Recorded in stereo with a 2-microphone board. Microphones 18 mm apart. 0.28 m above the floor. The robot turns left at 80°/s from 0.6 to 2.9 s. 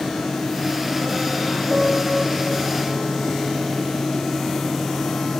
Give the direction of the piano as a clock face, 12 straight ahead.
2 o'clock.